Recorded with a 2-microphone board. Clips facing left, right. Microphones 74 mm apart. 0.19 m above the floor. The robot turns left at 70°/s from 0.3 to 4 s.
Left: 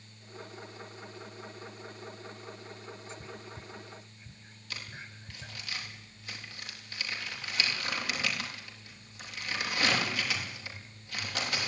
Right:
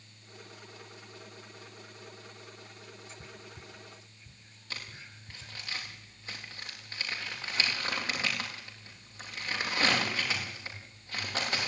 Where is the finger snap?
No finger snap in this recording.